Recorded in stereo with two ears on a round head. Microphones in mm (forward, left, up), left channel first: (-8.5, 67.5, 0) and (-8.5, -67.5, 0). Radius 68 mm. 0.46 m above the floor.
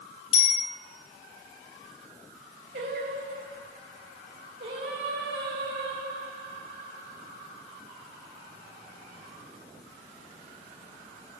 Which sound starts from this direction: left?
A bicycle bell, at 0.3 s.